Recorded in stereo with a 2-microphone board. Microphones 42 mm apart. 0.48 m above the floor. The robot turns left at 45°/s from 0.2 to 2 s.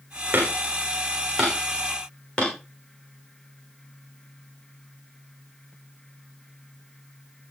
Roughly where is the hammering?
Right.